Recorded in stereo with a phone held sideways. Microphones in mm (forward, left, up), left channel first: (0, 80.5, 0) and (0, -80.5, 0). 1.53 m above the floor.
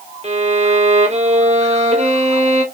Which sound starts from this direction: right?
A violin, at 0.2 s.